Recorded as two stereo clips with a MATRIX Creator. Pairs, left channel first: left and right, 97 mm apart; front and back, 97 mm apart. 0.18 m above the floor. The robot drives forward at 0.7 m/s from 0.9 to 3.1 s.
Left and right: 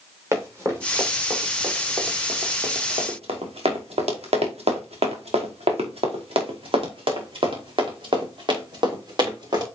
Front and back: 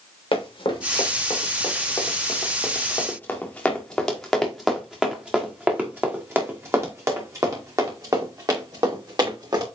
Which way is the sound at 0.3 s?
30° right.